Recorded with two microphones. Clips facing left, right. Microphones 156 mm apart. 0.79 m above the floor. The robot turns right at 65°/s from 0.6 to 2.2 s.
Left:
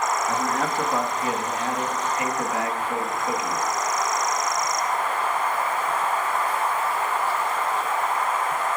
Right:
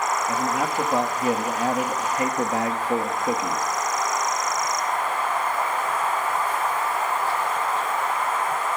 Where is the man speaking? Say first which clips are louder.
Even; 165° right, 1.1 m; by 3.6 s 60° right, 1.1 m.